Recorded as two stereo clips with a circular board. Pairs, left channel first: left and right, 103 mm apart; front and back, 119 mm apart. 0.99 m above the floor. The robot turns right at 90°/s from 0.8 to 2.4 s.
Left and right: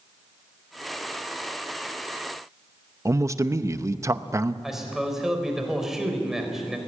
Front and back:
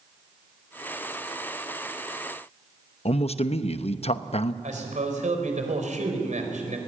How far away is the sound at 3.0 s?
About 0.8 m.